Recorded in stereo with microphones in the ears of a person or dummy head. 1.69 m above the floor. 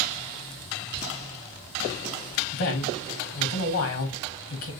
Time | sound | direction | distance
0.9 | laughter | 65° right (ahead or behind) | 1.8 m
2.5 | a man speaking | 70° left (ahead or behind) | 1.0 m